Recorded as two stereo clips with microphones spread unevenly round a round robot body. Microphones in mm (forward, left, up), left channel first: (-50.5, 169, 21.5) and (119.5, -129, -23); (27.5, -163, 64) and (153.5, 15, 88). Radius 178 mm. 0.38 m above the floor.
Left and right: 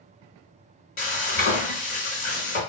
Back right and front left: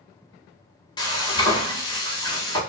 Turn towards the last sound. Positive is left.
turn(degrees=-175)